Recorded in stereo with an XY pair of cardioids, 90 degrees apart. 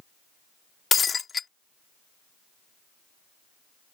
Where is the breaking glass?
45° left.